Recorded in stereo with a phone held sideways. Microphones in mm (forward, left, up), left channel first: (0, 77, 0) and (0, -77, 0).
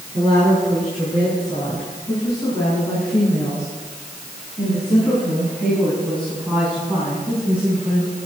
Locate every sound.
0.1 s a woman speaking: 30° left (ahead or behind), 8.5 m; by 8.2 s 10° right (ahead or behind), 6 m